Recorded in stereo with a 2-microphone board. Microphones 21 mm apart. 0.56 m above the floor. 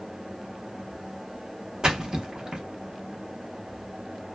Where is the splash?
40° right (ahead or behind), 0.7 m.